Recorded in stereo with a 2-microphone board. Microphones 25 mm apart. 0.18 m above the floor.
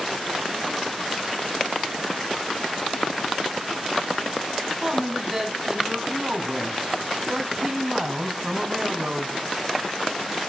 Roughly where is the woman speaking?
Centre.